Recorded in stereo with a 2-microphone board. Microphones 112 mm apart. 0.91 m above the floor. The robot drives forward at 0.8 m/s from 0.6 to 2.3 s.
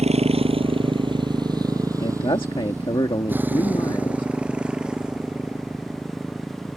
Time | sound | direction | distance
0.0 | a motorcycle | 70° right (ahead or behind) | ?
2.0 | a man speaking | 55° left (ahead or behind) | ?